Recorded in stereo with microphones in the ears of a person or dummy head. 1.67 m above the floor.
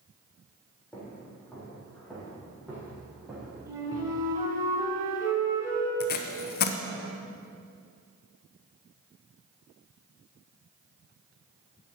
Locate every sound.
0.9 s footsteps: 10° left (ahead or behind), 4.5 m; by 4.3 s 20° right (ahead or behind), 4 m
3.7 s a flute: 15° right (ahead or behind), 1.6 m
6.0 s tape being pulled: 45° left (ahead or behind), 0.8 m